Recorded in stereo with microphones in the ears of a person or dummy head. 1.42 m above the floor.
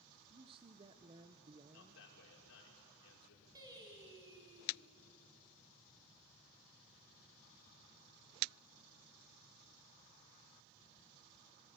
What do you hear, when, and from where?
0.3 s a man speaking: 30° right (ahead or behind), 0.9 m
1.7 s a man speaking: 70° left (ahead or behind), 5 m
3.5 s singing: 20° right (ahead or behind), 4.5 m